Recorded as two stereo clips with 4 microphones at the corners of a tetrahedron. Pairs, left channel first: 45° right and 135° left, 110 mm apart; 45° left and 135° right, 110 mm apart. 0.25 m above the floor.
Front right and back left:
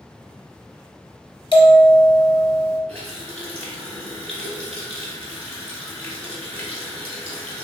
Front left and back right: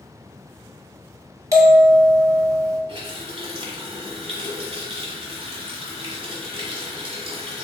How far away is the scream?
I don't hear a scream.